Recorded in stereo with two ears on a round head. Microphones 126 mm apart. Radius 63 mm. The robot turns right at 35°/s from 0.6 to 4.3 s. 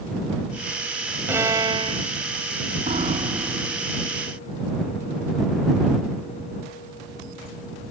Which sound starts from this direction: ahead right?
A piano, at 2.9 s.